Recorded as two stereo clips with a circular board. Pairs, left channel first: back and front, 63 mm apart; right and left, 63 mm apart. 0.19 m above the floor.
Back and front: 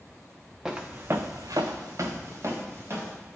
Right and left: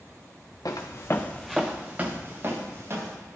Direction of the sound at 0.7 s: 80° right.